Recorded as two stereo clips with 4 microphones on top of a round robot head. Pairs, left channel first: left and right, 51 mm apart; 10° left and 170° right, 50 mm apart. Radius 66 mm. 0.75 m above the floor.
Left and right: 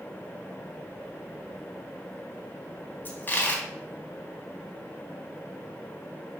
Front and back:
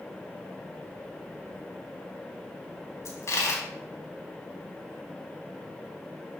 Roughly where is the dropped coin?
Ahead left.